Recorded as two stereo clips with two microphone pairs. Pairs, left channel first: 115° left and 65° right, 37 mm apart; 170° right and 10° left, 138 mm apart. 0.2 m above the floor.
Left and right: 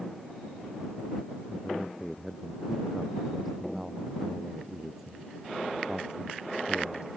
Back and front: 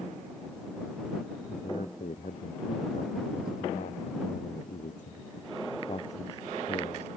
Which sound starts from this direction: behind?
A man speaking, at 1.5 s.